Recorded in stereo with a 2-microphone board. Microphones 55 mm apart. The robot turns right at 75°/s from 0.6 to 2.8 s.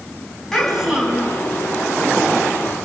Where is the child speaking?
175° left, 2.5 m; by 1.4 s 130° right, 2.5 m.